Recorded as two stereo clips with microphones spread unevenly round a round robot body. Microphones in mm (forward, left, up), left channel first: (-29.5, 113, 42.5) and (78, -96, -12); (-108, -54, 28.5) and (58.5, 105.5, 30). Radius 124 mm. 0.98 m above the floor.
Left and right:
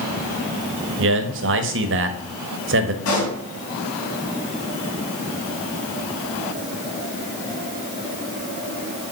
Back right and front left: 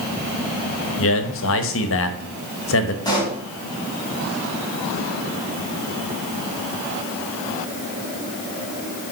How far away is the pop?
About 3.5 m.